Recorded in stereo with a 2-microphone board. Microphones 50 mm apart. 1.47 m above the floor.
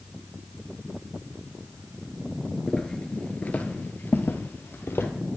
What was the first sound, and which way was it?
Footsteps, 10° left (ahead or behind).